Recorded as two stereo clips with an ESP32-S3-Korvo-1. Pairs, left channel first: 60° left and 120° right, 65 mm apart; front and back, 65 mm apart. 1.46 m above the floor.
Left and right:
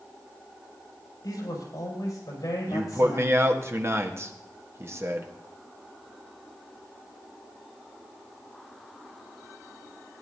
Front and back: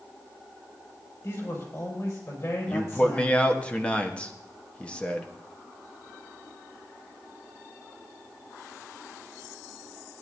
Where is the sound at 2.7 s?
70° right, 1.3 m.